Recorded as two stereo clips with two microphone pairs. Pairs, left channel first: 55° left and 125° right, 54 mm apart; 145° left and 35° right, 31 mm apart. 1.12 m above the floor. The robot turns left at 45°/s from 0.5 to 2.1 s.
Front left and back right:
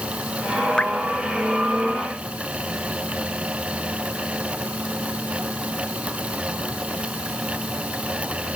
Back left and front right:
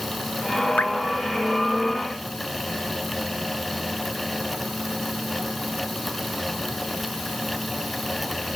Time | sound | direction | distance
0.8 | dripping | 130° left | 1.3 m